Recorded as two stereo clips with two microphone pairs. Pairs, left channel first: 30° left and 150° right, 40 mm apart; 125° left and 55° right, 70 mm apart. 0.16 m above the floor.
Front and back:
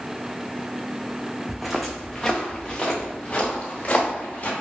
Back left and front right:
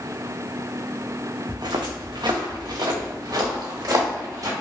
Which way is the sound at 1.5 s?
80° right.